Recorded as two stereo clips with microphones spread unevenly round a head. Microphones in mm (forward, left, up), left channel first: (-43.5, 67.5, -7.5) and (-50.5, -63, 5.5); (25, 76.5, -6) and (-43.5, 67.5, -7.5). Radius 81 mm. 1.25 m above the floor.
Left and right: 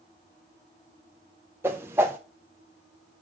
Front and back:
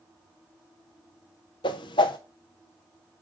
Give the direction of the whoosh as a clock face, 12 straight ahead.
12 o'clock.